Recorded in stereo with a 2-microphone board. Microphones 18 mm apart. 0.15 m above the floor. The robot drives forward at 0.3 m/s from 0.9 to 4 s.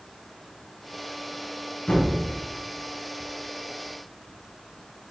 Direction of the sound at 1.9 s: 60° left (ahead or behind).